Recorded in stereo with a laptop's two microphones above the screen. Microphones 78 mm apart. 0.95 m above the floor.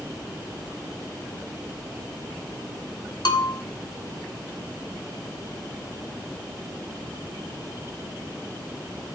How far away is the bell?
About 1.4 m.